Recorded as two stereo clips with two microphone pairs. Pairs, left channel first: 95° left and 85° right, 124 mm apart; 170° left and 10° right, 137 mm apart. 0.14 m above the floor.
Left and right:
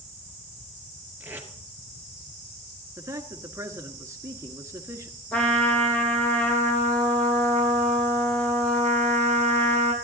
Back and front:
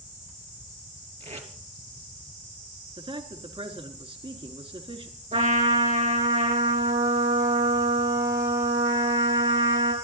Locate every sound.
1.2 s tape being pulled: 15° right, 2 m
3.0 s a man speaking: 30° right, 1.6 m
5.3 s a trumpet: 15° left, 3.5 m